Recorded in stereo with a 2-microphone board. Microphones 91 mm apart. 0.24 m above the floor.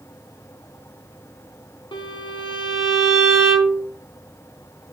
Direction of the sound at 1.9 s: 70° left (ahead or behind).